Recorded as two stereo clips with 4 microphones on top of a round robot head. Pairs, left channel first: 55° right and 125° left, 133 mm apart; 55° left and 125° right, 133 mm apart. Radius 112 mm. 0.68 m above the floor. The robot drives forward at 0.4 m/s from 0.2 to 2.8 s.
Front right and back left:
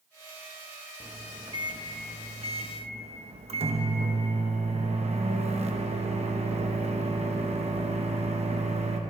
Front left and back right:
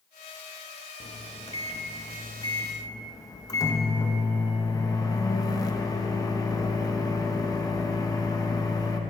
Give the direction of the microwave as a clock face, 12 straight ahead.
10 o'clock.